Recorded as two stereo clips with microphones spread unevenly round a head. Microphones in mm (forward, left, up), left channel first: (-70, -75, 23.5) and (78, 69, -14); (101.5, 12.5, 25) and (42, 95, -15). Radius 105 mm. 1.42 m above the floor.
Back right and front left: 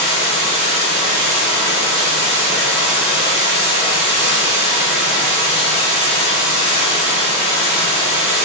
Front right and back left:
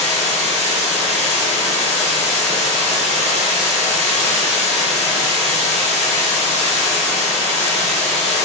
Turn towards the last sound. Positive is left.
turn(degrees=105)